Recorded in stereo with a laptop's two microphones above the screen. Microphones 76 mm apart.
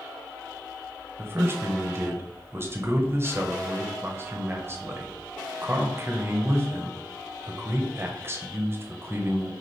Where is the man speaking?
35° right (ahead or behind), 0.8 m.